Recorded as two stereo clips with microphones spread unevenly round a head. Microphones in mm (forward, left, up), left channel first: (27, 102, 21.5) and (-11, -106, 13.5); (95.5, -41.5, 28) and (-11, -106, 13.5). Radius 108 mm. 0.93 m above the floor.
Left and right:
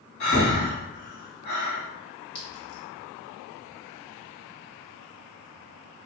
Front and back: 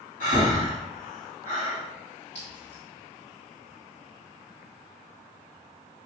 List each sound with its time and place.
0.2 s breathing: 40° left, 1.6 m
2.4 s a clink: 95° left, 2.0 m